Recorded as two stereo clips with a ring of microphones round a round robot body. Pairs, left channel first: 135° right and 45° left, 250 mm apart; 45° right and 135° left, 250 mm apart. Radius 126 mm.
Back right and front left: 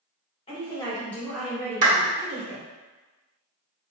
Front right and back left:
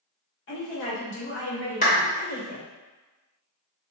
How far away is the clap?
About 1.0 m.